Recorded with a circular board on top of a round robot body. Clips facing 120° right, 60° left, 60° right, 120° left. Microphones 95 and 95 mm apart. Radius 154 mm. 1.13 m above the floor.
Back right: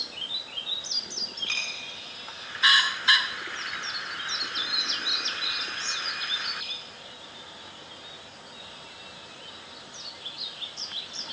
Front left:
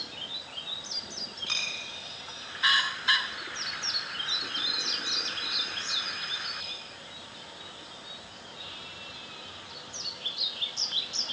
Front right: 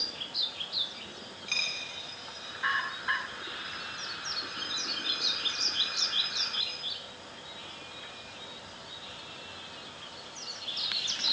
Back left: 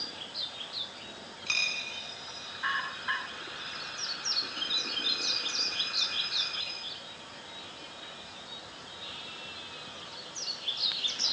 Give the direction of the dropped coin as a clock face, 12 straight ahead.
8 o'clock.